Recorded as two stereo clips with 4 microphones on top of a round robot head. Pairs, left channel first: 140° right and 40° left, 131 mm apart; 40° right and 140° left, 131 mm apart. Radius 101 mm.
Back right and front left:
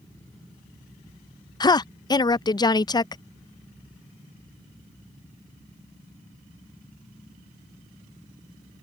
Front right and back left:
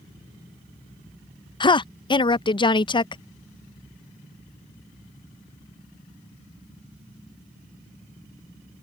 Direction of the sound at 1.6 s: 85° right.